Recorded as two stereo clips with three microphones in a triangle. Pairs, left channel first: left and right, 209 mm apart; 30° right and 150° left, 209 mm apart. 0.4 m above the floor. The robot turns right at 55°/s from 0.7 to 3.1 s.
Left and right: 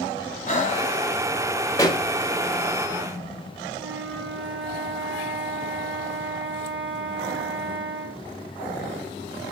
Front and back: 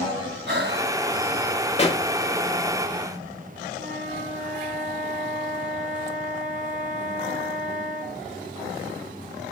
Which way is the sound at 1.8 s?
20° left.